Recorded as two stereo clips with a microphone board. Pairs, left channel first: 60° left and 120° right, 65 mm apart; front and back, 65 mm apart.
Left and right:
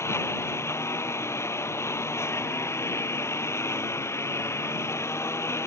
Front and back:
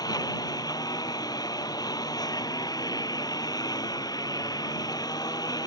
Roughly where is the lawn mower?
Ahead.